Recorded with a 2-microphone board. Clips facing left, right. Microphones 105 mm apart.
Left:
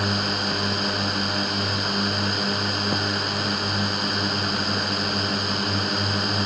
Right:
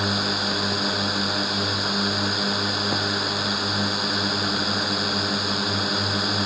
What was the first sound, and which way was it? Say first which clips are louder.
A drone: even; 5° right (ahead or behind).